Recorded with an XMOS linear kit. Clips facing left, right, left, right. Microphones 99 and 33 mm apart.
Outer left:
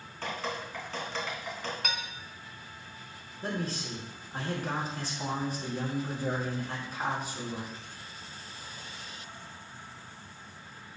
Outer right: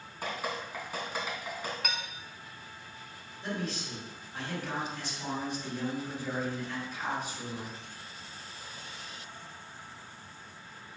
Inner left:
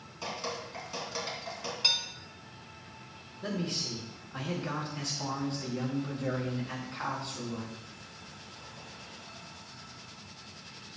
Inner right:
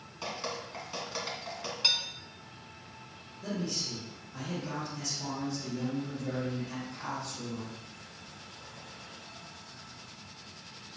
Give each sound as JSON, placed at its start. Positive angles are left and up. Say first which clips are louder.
{"t": 0.2, "sound": "dripping", "louder": "even, even", "side_deg": -10, "distance_m": 2.5}
{"t": 1.8, "sound": "dishes clattering", "louder": "outer left 1 dB, even", "side_deg": 0, "distance_m": 1.4}
{"t": 3.4, "sound": "a man speaking", "louder": "outer left 2 dB, inner left 1 dB", "side_deg": 40, "distance_m": 4.0}